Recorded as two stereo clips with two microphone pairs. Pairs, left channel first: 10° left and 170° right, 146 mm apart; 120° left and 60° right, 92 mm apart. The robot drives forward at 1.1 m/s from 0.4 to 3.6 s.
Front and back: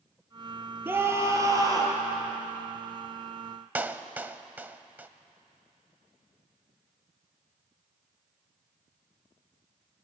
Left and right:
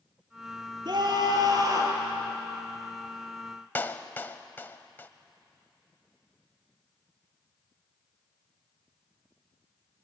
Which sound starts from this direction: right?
A scream, at 0.8 s.